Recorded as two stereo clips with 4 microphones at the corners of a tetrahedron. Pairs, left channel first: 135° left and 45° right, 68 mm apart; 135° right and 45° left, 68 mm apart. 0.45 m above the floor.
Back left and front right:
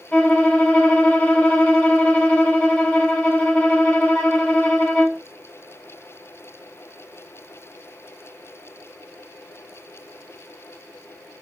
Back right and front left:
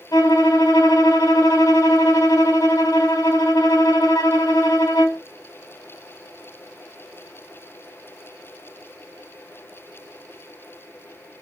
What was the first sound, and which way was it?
A violin, 155° right.